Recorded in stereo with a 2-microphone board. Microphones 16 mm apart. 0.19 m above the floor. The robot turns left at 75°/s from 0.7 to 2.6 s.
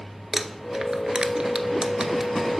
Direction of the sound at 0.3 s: 30° right (ahead or behind).